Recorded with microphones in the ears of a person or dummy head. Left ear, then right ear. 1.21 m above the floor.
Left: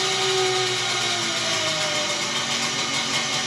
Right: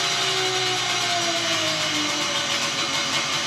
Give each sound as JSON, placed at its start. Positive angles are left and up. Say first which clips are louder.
{"t": 0.0, "sound": "an engine running", "louder": "left 1 dB", "side_deg": -20, "distance_m": 0.8}